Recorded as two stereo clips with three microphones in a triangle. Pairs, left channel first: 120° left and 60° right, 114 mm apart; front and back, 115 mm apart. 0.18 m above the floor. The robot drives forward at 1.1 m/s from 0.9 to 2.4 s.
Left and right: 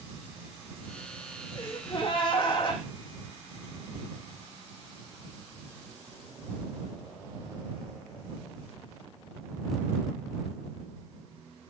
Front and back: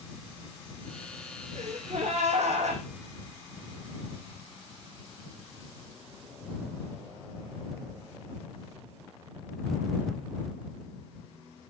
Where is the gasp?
165° left, 4.5 m.